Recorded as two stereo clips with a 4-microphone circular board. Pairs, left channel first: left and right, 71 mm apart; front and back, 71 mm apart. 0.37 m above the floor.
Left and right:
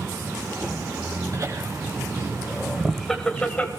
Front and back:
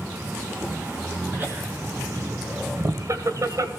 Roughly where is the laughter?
Behind right.